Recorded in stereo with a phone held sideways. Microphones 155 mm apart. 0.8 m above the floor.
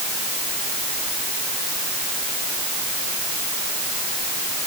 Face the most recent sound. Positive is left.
No sound to turn to.